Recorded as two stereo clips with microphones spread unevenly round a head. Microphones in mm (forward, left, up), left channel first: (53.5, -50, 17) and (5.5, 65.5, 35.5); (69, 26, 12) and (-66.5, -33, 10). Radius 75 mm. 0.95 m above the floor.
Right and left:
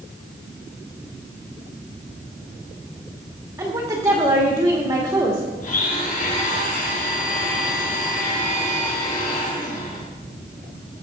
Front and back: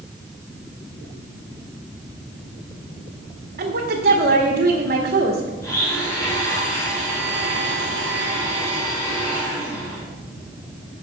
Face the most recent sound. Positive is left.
turn(degrees=-50)